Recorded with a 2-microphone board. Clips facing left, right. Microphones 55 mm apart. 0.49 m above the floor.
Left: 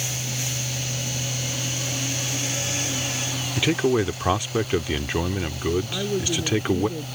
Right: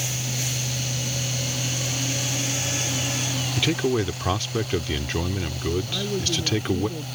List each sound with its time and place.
3.6 s a man speaking: 15° left (ahead or behind)
5.9 s a woman speaking: 15° left (ahead or behind)